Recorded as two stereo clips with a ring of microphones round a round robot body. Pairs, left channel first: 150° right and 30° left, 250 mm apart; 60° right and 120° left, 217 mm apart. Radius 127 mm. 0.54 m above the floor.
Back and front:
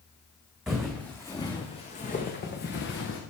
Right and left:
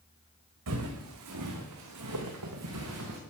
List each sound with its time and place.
0.7 s footsteps: 120° left, 2.5 m; by 3.2 s 165° left, 3 m